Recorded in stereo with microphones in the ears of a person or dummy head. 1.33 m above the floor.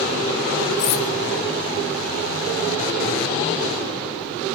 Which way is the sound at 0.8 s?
60° left (ahead or behind).